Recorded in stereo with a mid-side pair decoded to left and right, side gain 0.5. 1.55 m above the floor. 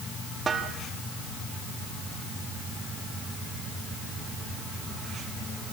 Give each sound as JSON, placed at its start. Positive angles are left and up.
{"t": 0.5, "sound": "a snare drum", "azimuth_deg": -35, "distance_m": 4.0}